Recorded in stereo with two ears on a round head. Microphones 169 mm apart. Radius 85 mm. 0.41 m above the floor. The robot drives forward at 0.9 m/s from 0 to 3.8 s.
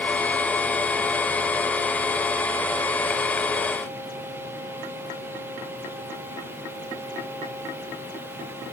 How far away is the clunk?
No clunk in this recording.